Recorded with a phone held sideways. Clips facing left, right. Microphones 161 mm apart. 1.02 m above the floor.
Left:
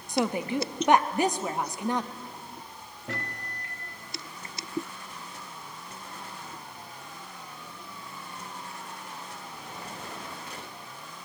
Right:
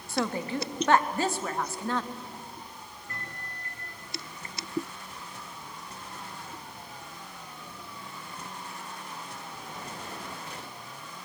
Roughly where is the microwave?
Left.